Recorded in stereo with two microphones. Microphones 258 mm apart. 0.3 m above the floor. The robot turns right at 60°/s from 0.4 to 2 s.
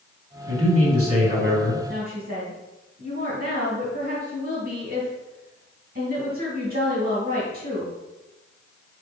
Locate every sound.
0.5 s a man speaking: 120° right, 3 m; by 1.8 s 40° right, 3 m
1.9 s a woman speaking: 40° right (ahead or behind), 2.5 m; by 7.9 s 35° right (ahead or behind), 2.5 m